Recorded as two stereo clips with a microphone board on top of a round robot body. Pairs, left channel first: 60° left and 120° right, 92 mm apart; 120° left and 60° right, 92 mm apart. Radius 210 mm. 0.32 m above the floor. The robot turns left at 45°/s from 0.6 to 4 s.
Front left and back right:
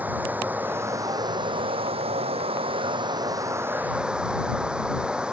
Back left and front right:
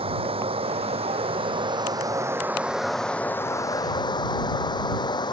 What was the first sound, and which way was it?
Running water, 45° right.